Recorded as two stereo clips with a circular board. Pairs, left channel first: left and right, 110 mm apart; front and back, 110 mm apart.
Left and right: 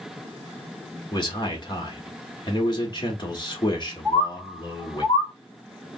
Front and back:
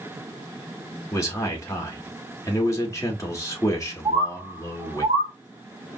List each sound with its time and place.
1.1 s a man speaking: 55° left, 1.6 m
4.0 s a bird: 150° right, 1.7 m